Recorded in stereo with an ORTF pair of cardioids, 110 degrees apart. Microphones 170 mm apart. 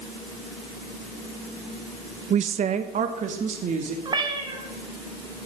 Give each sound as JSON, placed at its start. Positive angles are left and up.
{"t": 2.3, "sound": "a woman speaking", "azimuth_deg": -45, "distance_m": 0.8}
{"t": 4.0, "sound": "a cat meowing", "azimuth_deg": -30, "distance_m": 2.0}